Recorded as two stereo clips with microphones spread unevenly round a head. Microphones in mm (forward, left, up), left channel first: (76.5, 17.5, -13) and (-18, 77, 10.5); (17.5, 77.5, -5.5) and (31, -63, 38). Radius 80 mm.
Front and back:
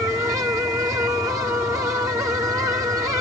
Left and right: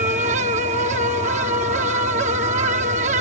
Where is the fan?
135° right.